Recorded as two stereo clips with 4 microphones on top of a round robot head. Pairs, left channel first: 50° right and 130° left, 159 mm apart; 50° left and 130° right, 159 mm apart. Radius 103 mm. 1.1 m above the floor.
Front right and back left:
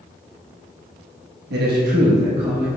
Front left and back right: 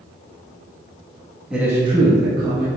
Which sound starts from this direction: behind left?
A man speaking, at 1.5 s.